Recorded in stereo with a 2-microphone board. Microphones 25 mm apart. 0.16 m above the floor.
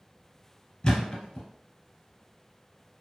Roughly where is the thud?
Left.